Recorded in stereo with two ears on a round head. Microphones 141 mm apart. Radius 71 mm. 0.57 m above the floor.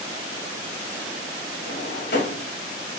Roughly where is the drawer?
Left.